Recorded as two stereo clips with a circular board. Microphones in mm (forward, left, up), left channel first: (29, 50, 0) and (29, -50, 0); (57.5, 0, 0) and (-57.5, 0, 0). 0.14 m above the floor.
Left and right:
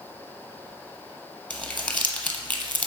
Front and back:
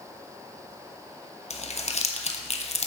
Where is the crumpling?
15° left, 0.9 m.